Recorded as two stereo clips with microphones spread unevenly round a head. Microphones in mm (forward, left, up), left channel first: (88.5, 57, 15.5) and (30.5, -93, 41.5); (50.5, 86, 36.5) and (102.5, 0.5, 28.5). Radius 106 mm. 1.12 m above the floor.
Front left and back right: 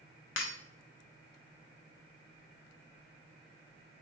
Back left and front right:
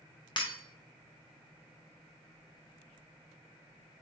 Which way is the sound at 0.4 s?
85° left.